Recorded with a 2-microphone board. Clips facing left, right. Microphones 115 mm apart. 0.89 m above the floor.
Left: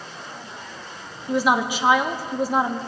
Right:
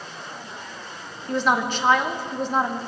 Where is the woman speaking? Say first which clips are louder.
Left 2 dB; 10° left (ahead or behind), 1.0 m.